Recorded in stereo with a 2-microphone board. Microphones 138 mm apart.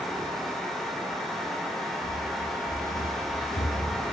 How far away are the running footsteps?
About 6 m.